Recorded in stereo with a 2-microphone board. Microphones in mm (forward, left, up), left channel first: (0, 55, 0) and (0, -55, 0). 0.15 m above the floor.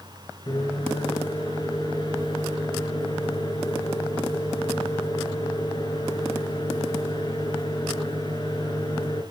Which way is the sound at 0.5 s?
40° left (ahead or behind).